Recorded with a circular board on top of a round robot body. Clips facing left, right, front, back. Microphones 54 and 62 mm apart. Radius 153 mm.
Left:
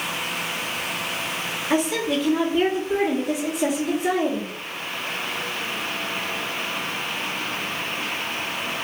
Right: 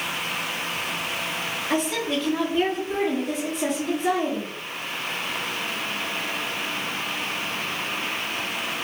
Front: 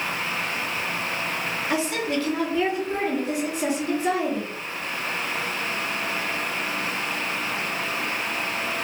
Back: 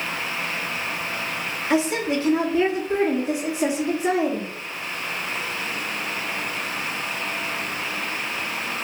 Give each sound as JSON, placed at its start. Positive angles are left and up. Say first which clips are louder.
{"t": 1.7, "sound": "a woman speaking", "louder": "left 3 dB, back 5 dB", "azimuth_deg": 165, "distance_m": 1.3}